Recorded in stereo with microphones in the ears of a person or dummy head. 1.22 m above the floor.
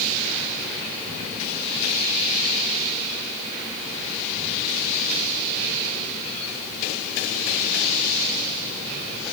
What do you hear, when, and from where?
Only background noise.